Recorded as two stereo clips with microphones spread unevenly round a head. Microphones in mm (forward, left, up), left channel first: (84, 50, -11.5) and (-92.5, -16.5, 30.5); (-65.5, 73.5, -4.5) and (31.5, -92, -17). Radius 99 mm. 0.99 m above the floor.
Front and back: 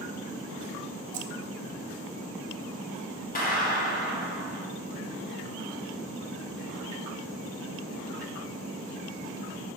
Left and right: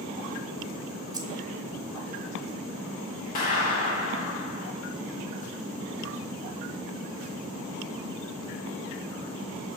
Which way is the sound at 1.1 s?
130° right.